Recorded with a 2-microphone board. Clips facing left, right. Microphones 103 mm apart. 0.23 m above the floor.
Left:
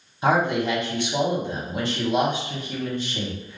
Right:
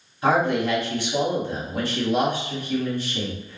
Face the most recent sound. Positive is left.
turn(degrees=20)  # may be behind; listen again after turning